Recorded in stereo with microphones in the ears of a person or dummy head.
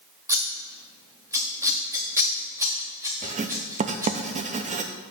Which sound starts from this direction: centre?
Scissors, at 0.3 s.